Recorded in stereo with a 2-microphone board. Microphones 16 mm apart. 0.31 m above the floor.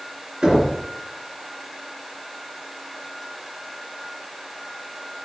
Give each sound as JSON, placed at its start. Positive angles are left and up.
{"t": 0.4, "sound": "knocking", "side_deg": -65, "distance_m": 3.0}